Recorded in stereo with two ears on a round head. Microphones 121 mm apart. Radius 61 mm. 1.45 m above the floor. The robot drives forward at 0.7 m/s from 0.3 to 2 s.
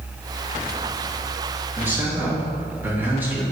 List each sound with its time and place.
1.8 s a man speaking: 15° right (ahead or behind), 2.5 m